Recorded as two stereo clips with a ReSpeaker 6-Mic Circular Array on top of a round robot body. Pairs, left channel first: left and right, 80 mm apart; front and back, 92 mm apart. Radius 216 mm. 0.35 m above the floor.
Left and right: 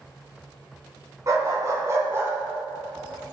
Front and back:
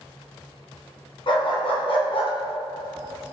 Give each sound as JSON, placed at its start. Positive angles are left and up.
{"t": 1.3, "sound": "a dog barking", "azimuth_deg": -40, "distance_m": 2.0}